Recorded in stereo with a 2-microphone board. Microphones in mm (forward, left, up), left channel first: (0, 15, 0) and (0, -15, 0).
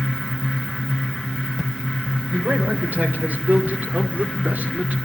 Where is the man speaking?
80° right, 4.5 m; by 5.0 s 55° right (ahead or behind), 2.5 m.